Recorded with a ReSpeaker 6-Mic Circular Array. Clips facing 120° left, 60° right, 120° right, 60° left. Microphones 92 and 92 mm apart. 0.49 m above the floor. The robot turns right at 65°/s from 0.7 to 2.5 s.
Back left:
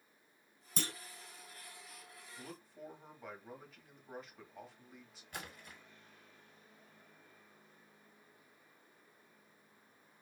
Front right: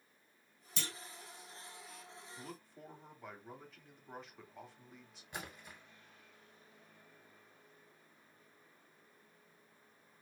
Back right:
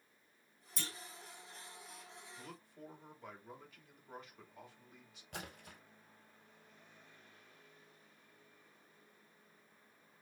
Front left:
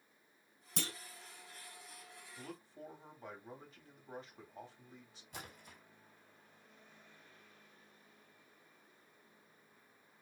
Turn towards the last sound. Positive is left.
turn(degrees=-130)